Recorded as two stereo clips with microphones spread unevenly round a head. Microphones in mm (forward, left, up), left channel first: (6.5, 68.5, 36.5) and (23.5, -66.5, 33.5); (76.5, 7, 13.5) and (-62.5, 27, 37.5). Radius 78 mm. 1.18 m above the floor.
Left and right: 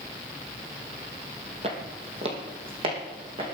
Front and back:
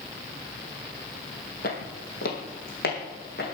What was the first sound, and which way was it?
Footsteps, 40° right.